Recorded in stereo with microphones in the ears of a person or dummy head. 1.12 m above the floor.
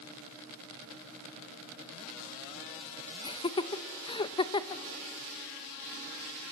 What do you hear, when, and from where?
3.2 s laughter: 25° left (ahead or behind), 0.7 m